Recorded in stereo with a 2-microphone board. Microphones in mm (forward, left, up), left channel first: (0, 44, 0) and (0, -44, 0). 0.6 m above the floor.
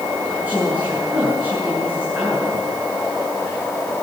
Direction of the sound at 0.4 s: 20° right (ahead or behind).